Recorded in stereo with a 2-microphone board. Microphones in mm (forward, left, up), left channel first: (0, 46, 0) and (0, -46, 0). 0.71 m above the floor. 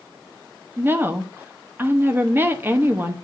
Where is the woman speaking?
20° right (ahead or behind), 0.9 m.